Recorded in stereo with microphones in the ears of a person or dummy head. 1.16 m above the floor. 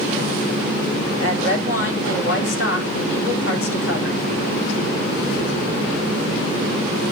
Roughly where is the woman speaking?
Left.